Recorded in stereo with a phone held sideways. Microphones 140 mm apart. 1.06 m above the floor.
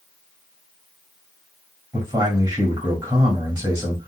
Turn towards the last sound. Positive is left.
turn(degrees=-35)  # may be behind; listen again after turning